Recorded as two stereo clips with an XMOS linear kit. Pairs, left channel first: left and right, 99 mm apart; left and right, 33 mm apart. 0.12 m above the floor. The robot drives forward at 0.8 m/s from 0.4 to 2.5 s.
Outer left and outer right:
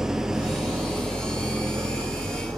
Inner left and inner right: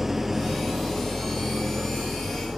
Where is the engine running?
5° right (ahead or behind), 1.0 m; by 2.6 s centre (ahead or behind), 2.5 m.